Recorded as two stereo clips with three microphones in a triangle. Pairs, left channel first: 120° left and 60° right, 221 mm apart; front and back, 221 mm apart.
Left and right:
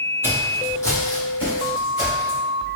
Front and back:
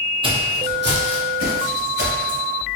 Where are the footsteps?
130° right, 1.1 m; by 2.4 s straight behind, 3.5 m.